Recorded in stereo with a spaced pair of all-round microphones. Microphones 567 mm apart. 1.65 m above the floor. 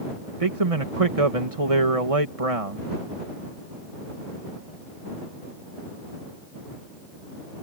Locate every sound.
0.4 s a man speaking: 75° right (ahead or behind)